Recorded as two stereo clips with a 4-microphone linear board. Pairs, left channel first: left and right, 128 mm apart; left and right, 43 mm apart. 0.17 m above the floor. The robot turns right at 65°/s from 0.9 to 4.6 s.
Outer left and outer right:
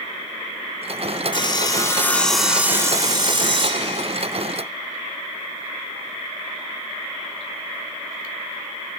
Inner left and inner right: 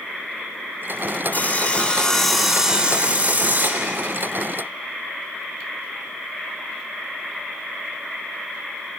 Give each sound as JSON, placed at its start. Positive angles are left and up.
{"t": 1.3, "sound": "sawing", "azimuth_deg": 110, "distance_m": 1.0}